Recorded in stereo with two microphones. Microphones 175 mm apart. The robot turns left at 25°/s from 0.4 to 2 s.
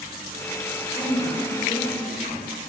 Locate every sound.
0.9 s a woman speaking: 25° left (ahead or behind), 2.5 m; by 2.3 s 45° left (ahead or behind), 2.5 m